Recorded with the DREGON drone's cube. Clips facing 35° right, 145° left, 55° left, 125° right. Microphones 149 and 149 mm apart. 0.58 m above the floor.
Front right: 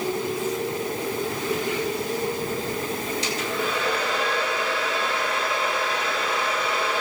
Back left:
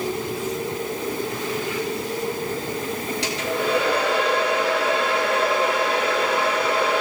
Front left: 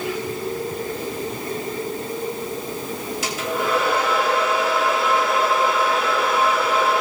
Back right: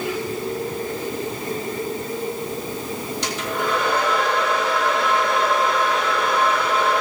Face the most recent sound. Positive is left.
turn(degrees=140)